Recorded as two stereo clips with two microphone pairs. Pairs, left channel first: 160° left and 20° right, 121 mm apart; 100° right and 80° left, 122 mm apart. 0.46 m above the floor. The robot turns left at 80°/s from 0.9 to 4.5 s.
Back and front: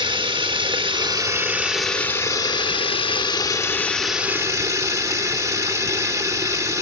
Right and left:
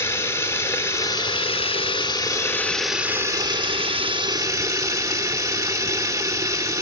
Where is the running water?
40° right, 0.8 m; by 6.8 s 35° left, 0.8 m.